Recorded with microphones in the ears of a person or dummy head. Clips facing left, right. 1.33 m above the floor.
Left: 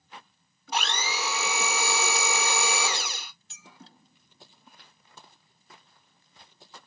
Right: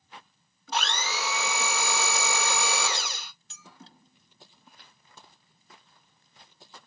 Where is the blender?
15° left (ahead or behind), 1.2 m.